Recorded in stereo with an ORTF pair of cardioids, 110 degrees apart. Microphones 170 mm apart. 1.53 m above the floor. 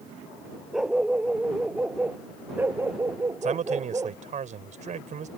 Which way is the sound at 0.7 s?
5° right.